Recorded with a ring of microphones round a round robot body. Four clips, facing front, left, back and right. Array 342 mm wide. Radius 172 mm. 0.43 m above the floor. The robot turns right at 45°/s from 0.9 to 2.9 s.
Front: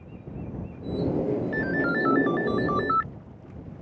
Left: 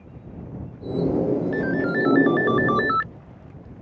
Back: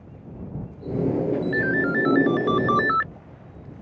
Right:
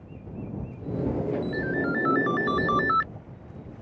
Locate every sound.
1.5 s a ringtone: 110° left; by 3.1 s 170° left